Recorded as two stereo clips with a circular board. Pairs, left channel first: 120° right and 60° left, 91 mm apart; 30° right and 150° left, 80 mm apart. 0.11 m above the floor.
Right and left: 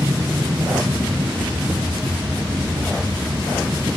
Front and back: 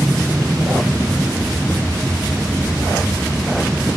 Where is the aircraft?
95° left; by 4.0 s 100° left.